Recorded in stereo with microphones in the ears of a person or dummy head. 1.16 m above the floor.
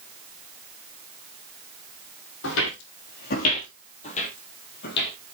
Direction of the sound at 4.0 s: 35° left (ahead or behind).